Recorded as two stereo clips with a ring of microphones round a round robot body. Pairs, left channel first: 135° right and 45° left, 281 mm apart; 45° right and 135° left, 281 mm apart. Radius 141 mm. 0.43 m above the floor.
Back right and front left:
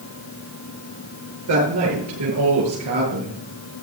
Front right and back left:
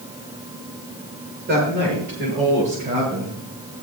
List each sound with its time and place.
1.5 s a woman speaking: 75° left, 8 m; by 3.4 s 65° left, 7 m